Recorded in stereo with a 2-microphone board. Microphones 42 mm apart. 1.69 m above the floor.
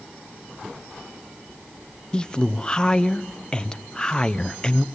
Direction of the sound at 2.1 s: 20° left (ahead or behind).